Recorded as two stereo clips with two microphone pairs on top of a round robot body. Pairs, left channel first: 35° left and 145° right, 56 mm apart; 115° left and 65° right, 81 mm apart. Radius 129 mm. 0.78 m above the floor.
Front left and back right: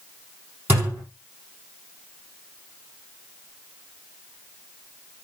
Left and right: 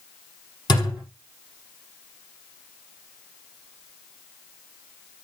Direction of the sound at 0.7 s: 150° left.